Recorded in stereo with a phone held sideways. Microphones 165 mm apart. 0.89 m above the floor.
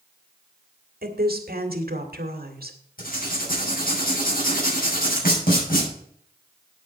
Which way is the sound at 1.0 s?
70° right (ahead or behind).